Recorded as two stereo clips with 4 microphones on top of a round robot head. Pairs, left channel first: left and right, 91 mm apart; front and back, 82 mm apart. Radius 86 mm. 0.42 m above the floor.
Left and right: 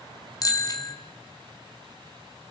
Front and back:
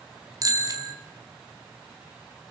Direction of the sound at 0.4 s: 140° left.